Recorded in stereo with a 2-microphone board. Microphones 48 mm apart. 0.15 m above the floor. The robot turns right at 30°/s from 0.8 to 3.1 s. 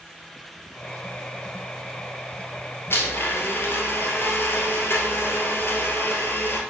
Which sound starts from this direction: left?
A blender, at 2.9 s.